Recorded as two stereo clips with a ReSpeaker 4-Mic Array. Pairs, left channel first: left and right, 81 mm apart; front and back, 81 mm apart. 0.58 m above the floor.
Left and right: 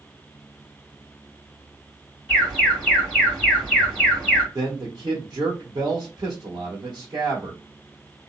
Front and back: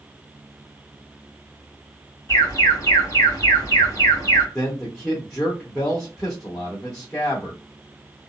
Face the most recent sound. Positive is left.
turn(degrees=-60)